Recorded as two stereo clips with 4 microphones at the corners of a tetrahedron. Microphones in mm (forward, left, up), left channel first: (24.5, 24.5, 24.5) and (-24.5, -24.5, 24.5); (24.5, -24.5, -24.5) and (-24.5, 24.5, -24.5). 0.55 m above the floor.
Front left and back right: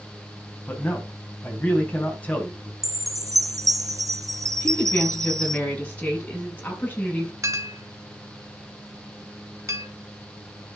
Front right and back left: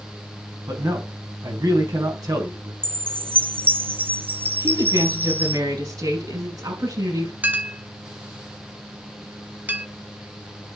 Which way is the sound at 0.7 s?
110° left.